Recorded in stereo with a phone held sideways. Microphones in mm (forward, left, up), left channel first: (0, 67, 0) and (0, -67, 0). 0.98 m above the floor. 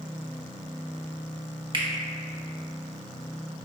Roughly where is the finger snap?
Right.